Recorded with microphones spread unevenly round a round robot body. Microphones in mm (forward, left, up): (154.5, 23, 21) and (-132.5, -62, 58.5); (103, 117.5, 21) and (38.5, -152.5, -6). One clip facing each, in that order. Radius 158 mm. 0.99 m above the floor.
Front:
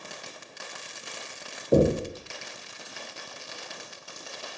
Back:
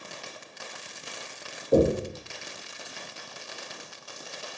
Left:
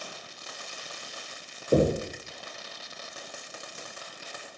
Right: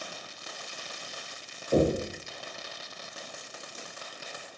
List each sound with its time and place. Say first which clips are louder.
1.7 s knocking: even, left 1 dB; 20° left, 0.7 m